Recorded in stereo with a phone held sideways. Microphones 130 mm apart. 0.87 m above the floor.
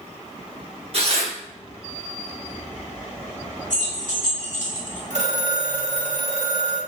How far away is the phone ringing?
About 1.0 m.